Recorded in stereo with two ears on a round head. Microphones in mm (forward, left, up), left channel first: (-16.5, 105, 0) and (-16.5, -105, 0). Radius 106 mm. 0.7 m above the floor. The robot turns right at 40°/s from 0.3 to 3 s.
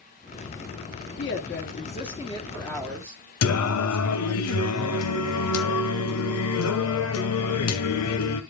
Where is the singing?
75° left (ahead or behind), 1.3 m.